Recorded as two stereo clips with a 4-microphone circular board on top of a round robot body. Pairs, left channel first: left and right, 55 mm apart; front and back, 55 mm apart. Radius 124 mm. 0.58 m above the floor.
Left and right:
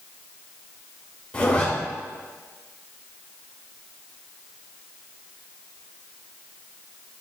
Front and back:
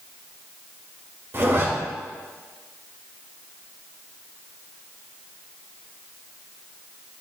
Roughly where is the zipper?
Behind left.